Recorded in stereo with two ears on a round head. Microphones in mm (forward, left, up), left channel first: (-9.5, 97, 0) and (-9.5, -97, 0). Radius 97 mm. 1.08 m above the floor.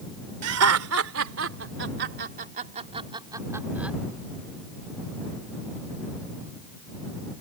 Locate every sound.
0.4 s laughter: 80° right; by 4.0 s 5° right (ahead or behind)